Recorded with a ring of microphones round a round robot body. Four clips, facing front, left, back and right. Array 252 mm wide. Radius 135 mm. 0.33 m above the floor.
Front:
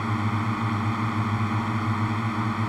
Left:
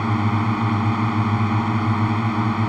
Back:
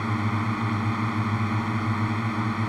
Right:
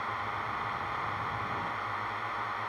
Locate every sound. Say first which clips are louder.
0.0 s a drone: left 13 dB, even; 95° left